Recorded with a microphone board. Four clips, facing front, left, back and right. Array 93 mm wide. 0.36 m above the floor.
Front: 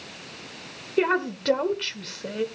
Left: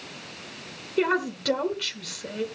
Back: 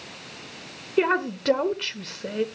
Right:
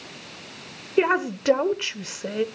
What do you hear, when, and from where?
1.0 s a woman speaking: 105° right, 1.0 m